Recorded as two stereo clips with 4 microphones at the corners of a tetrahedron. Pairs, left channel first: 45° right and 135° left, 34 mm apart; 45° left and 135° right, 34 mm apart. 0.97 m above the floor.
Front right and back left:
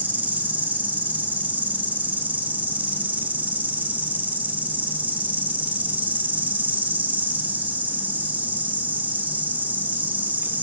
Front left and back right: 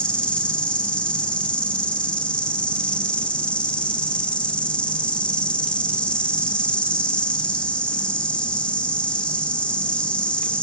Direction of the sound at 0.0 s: 105° left.